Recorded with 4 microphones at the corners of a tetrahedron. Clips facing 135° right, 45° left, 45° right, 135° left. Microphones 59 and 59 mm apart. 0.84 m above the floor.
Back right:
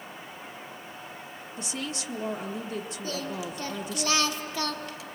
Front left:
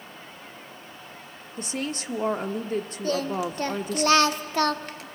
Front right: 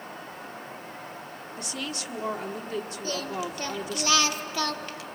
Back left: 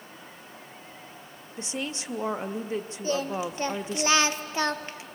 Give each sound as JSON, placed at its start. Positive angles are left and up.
{"t": 1.6, "sound": "a woman speaking", "azimuth_deg": 75, "distance_m": 1.0}
{"t": 3.0, "sound": "singing", "azimuth_deg": 75, "distance_m": 0.8}